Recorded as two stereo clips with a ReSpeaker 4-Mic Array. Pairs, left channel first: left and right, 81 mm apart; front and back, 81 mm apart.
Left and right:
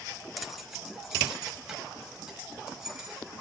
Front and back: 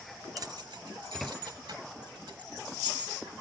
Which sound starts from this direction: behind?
Keys jangling, at 0.4 s.